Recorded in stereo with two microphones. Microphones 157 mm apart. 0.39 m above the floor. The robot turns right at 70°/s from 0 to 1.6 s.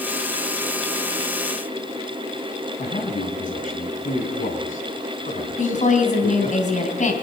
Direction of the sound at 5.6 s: 55° left (ahead or behind).